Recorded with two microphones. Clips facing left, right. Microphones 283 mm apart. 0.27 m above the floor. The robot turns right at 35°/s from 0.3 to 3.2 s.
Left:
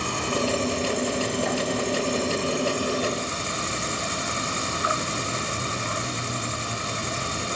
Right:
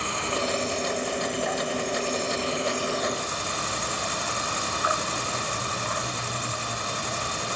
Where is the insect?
50° left, 0.8 m; by 7.6 s 150° left, 0.8 m.